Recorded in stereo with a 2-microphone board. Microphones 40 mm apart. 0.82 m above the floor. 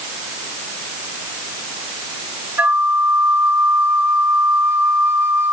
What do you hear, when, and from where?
2.6 s a flute: 50° right (ahead or behind), 1.7 m